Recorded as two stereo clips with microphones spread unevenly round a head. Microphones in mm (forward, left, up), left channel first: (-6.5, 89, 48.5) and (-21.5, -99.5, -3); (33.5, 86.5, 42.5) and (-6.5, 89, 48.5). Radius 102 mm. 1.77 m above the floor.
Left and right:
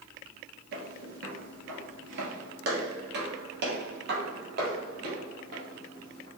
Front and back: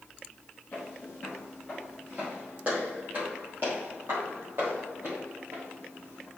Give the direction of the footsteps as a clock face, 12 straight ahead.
3 o'clock.